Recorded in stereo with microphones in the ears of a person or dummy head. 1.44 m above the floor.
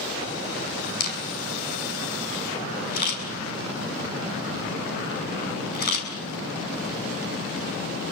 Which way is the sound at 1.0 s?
50° left (ahead or behind).